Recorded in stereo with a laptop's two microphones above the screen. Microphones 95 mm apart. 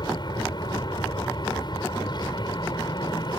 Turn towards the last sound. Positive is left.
turn(degrees=50)  # may be behind; listen again after turning